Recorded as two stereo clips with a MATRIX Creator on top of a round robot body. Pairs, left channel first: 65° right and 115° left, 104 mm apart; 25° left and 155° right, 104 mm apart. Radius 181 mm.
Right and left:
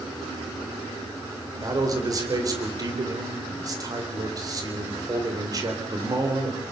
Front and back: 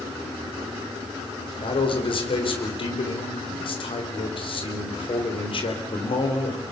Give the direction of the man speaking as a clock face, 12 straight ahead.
10 o'clock.